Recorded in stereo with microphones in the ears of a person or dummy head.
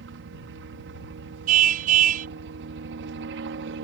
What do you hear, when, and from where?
0.0 s a helicopter: 65° right (ahead or behind)
1.5 s a car horn: 45° right (ahead or behind)